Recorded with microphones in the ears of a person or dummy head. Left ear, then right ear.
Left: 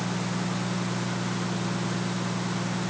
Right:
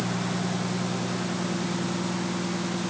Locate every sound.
Only background noise.